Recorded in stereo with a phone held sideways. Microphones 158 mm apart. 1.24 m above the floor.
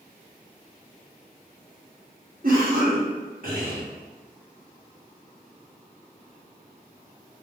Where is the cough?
65° right (ahead or behind), 1.1 m.